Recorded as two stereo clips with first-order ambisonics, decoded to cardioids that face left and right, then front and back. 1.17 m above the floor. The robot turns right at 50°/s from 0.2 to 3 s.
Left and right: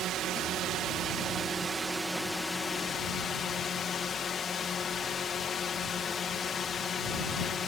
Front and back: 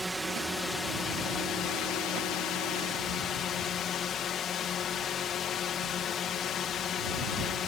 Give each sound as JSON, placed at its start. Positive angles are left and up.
{"t": 0.0, "sound": "a drone", "azimuth_deg": -100}